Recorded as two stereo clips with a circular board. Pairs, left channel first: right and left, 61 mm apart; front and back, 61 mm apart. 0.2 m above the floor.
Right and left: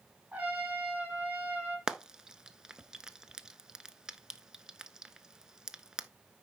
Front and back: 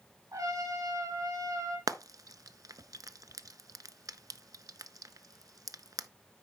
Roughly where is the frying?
Behind.